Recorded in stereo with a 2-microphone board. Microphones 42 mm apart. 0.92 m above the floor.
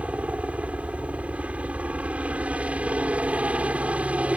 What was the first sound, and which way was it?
A helicopter, 35° right (ahead or behind).